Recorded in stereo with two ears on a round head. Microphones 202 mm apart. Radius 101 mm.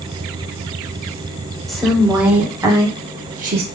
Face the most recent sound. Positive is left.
turn(degrees=-45)  # may be behind; listen again after turning